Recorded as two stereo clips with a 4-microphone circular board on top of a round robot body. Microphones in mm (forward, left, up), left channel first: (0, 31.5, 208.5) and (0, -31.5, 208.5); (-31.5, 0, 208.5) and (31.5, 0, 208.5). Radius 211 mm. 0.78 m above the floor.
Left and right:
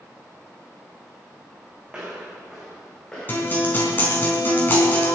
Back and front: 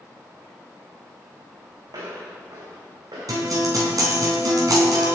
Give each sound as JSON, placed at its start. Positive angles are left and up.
{"t": 1.9, "sound": "footsteps", "azimuth_deg": -15, "distance_m": 3.5}
{"t": 3.3, "sound": "a guitar", "azimuth_deg": 30, "distance_m": 4.0}